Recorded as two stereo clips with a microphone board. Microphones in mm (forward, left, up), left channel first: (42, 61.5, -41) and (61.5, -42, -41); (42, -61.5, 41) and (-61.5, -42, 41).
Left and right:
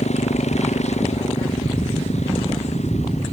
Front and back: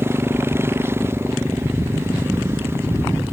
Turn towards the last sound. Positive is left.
turn(degrees=100)